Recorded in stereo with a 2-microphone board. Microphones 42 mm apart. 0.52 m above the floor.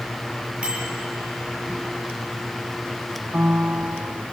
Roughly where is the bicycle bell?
Right.